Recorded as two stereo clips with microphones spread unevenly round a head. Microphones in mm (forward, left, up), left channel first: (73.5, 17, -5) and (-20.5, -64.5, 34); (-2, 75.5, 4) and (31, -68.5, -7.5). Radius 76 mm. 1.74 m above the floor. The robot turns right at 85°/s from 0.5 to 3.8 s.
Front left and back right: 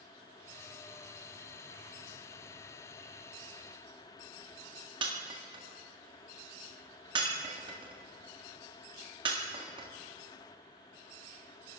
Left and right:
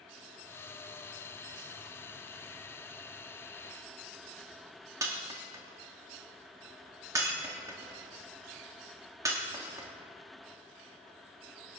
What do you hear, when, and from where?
5.0 s breaking glass: 145° right, 1.6 m